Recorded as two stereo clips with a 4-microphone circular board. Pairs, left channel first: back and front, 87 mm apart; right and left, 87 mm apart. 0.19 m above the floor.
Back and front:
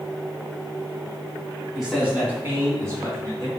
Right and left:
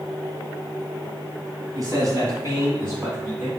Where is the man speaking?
85° left, 2 m; by 3.5 s 30° left, 3 m.